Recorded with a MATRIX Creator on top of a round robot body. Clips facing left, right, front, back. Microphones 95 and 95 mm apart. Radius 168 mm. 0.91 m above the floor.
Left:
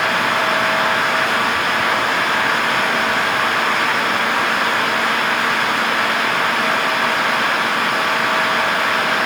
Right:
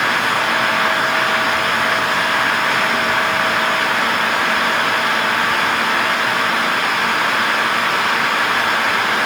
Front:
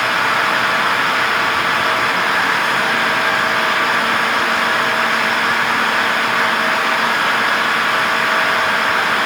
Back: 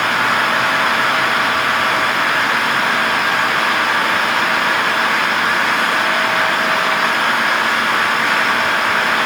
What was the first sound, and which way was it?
Only background noise.